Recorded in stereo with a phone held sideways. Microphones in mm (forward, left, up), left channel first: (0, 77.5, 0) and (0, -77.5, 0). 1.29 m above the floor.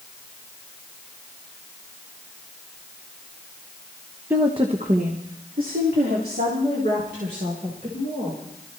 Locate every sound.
4.3 s a woman speaking: 15° right (ahead or behind), 0.8 m; by 8.4 s 85° right, 5.5 m